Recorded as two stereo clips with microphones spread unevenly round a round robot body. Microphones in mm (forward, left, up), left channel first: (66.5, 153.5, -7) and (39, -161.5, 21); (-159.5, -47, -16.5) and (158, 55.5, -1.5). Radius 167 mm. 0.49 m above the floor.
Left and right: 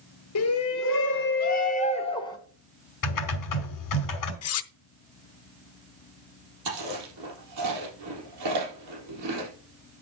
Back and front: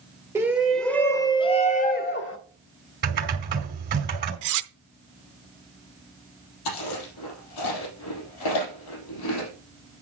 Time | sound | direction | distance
0.3 | a shout | 100° left | 1.4 m
3.0 | typing on a keyboard | 80° left | 2.5 m
4.4 | cutlery clinking | 50° left | 0.7 m
6.7 | chewing | 140° right | 3.5 m